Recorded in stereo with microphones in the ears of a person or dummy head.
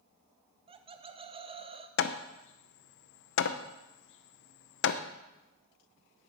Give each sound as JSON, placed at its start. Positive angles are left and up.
{"t": 0.7, "sound": "laughter", "side_deg": -25, "distance_m": 0.7}
{"t": 2.0, "sound": "hammering", "side_deg": 65, "distance_m": 0.6}